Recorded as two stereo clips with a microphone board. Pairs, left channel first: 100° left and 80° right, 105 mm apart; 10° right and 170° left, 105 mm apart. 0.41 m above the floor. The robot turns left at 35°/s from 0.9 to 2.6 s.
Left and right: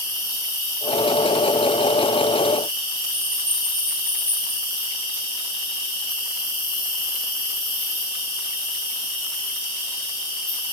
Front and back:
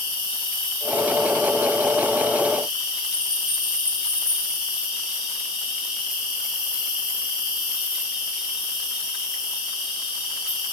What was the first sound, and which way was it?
An insect, 150° left.